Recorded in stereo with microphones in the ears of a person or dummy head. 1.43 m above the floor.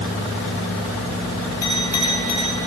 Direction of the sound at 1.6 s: 20° left (ahead or behind).